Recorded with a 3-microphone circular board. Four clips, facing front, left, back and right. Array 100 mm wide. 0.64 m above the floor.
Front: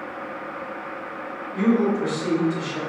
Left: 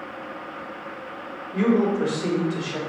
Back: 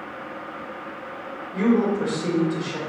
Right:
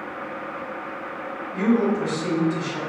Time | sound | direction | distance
1.5 | a man speaking | 110° left | 2.5 m